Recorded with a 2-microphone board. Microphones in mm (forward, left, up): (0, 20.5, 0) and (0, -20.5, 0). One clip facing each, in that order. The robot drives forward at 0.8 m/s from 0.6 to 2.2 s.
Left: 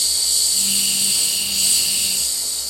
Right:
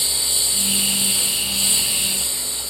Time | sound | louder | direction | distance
0.0 | a lawn mower | left 1 dB | 25° right (ahead or behind) | ?